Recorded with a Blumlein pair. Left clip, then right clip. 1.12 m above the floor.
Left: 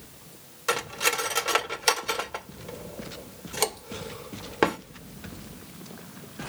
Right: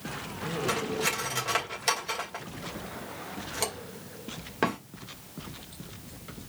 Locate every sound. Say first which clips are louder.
0.7 s cutlery clinking: left 5 dB; 15° left, 2 m